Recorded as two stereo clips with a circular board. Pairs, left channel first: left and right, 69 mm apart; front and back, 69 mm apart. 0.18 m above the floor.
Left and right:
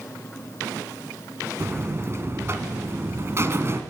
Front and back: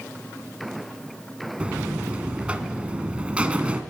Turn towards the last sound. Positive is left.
turn(degrees=-115)